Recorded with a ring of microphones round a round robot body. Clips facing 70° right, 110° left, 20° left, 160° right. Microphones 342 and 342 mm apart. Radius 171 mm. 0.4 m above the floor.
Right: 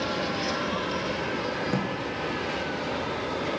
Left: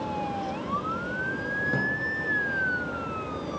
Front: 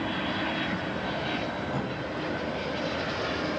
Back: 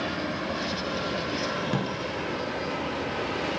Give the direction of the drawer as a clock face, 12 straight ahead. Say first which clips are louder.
Right 1 dB, back 4 dB; 5 o'clock.